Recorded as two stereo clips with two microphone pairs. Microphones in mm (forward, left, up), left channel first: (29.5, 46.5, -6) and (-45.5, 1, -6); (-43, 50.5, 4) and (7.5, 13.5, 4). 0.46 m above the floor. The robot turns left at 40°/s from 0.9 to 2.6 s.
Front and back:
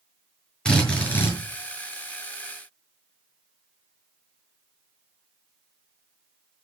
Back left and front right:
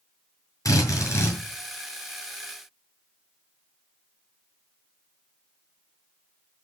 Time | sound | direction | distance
0.7 | a drill | 110° left | 8 m